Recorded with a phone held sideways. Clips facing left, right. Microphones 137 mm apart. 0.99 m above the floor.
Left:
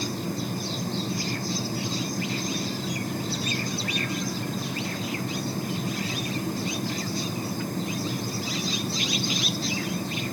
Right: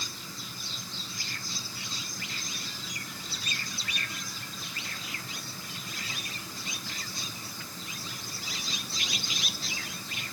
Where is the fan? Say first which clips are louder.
Left 15 dB; 55° left (ahead or behind).